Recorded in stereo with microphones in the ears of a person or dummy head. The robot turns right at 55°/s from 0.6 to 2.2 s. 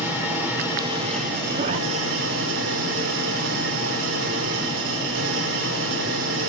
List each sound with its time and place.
0.0 s an engine running: 165° right, 5.5 m; by 6.5 s 75° right, 5.5 m
1.5 s a zipper: 35° right (ahead or behind), 0.9 m; by 1.8 s 50° right (ahead or behind), 0.9 m